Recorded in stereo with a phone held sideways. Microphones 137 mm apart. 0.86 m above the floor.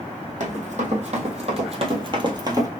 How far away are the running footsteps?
About 1.9 m.